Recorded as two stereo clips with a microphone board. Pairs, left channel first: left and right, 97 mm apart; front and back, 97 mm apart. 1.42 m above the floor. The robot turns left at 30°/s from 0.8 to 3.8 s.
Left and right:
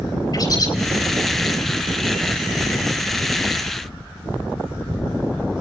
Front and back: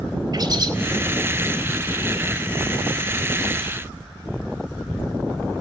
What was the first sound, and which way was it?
A bird, 135° left.